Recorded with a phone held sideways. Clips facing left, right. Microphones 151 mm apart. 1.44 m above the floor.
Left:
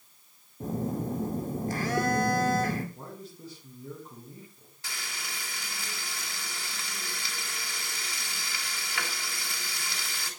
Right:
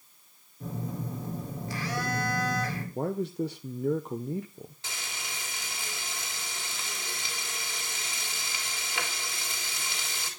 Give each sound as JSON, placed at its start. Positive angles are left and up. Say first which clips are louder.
{"t": 0.6, "sound": "a phone buzzing", "louder": "left 5 dB", "side_deg": 50, "distance_m": 3.0}
{"t": 3.0, "sound": "a man speaking", "louder": "right 14 dB", "side_deg": -70, "distance_m": 1.0}
{"t": 4.8, "sound": "frying", "louder": "left 3 dB", "side_deg": -20, "distance_m": 3.5}